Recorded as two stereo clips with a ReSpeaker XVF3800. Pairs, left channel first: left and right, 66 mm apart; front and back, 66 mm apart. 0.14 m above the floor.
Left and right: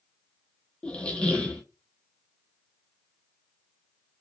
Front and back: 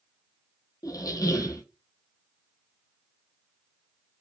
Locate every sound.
0.8 s a squeak: 15° left, 0.6 m